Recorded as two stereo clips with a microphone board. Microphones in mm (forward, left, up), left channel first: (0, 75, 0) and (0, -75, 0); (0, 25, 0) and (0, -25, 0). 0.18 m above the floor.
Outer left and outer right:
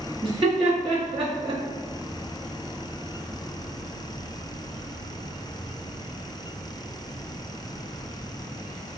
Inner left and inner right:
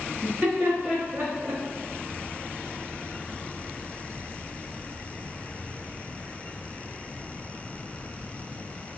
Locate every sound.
0.2 s laughter: 35° right (ahead or behind), 1.7 m